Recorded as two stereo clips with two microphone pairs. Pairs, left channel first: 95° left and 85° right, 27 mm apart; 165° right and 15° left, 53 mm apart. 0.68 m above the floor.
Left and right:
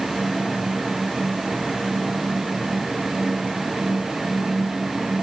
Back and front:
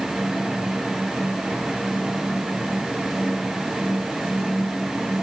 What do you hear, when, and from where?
Only background noise.